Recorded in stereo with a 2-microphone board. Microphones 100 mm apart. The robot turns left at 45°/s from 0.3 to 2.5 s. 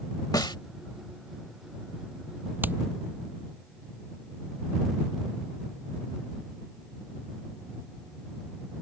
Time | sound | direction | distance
0.3 | a snare drum | 40° left (ahead or behind) | ?
2.6 | hammering | 20° right (ahead or behind) | ?